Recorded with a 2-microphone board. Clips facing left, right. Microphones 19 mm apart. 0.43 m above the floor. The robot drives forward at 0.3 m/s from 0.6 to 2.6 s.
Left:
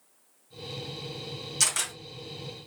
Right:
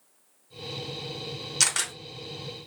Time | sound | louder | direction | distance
1.6 | a camera shutter | right 2 dB | 35° right (ahead or behind) | 0.9 m